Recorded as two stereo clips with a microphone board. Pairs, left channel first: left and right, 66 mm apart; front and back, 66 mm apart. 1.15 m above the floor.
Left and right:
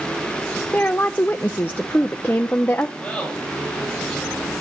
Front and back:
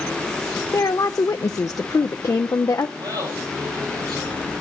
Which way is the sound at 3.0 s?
170° left.